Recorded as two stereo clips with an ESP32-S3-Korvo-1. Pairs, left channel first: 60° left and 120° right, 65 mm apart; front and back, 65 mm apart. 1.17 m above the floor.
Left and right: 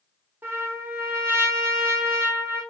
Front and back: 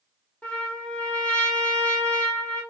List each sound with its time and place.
0.4 s a trumpet: 70° right, 1.1 m